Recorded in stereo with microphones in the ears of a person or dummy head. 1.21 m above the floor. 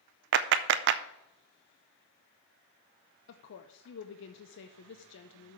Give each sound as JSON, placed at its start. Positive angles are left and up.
{"t": 0.3, "sound": "a clap", "side_deg": -60, "distance_m": 0.5}
{"t": 3.3, "sound": "a woman speaking", "side_deg": 60, "distance_m": 0.6}